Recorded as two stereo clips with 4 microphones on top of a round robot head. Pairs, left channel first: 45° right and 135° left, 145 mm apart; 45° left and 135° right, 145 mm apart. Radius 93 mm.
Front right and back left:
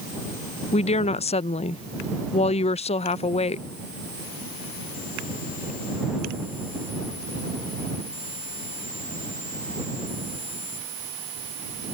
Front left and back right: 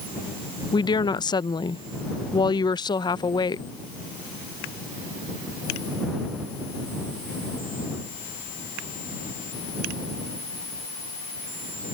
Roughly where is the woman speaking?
Ahead.